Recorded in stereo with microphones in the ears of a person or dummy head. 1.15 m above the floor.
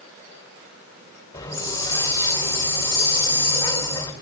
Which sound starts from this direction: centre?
A hiss, at 1.3 s.